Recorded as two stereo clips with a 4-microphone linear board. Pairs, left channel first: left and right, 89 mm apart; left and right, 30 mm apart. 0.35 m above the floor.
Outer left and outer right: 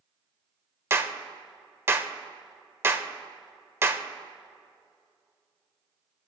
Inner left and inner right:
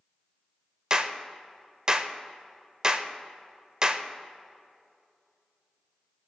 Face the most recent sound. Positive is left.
turn(degrees=-30)  # may be behind; listen again after turning